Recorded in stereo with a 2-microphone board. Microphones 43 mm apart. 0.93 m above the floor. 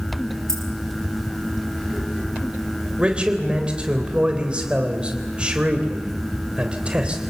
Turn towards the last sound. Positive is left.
turn(degrees=-25)  # may be behind; listen again after turning